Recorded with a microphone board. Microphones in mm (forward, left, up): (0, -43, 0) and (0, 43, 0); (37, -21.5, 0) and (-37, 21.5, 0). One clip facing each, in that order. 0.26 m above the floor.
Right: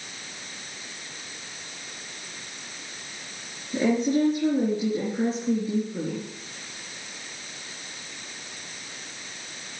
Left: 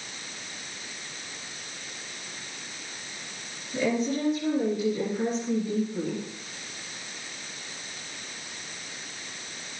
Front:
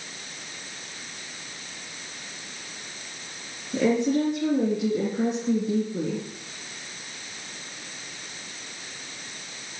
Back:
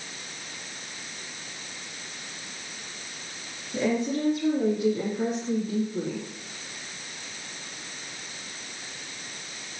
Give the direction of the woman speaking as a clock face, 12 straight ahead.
1 o'clock.